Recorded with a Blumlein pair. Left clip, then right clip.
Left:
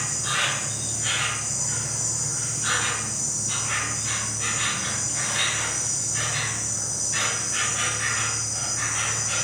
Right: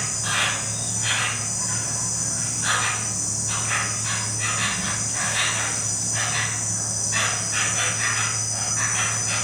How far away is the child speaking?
No child speaking in this recording.